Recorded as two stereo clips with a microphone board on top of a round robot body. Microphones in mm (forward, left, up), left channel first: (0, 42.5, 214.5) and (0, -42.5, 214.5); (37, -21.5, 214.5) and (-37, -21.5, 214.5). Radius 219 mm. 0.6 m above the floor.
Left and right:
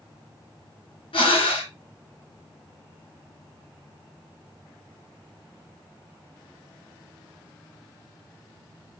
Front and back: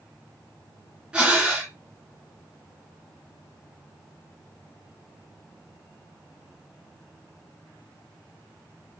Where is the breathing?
95° left, 1.9 m.